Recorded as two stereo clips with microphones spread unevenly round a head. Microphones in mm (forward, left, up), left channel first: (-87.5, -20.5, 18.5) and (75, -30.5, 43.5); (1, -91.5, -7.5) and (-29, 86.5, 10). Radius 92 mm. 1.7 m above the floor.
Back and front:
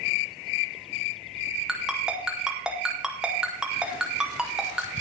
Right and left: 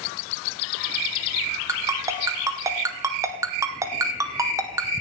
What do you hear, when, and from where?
1.7 s a ringtone: 60° left, 0.7 m